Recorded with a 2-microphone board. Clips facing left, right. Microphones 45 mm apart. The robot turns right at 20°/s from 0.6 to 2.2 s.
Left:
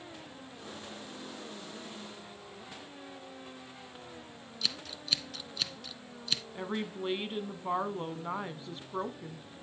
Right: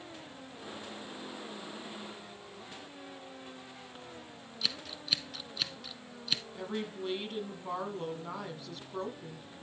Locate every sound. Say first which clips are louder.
4.6 s scissors: even; 5° right (ahead or behind), 1.0 m
6.5 s a woman speaking: left 1 dB; 30° left (ahead or behind), 1.4 m